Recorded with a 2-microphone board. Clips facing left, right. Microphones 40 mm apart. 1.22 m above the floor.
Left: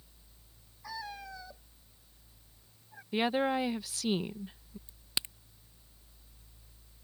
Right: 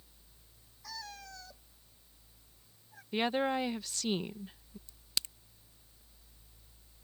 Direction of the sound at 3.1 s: 5° left (ahead or behind).